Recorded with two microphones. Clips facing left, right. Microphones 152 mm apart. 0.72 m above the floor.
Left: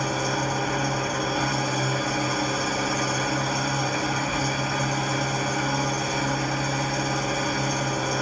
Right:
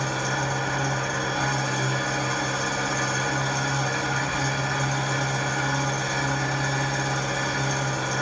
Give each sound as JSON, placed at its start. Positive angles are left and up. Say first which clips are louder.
{"t": 0.0, "sound": "an engine running", "louder": "left 2 dB", "side_deg": 10, "distance_m": 0.9}